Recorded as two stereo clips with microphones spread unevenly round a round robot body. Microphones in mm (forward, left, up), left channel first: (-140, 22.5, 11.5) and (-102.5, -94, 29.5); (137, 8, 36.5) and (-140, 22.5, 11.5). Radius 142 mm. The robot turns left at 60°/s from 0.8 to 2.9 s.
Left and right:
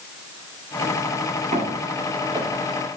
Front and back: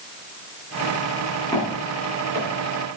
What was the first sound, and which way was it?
Footsteps, 75° right.